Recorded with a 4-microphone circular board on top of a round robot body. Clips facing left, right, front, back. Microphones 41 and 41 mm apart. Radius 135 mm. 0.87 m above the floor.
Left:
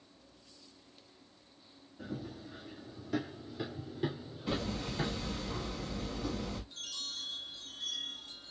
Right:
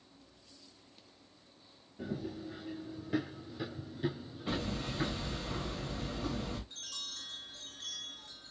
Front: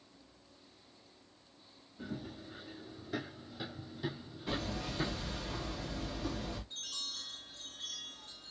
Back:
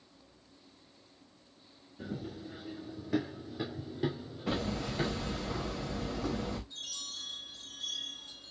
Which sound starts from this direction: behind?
Hammering, at 4.5 s.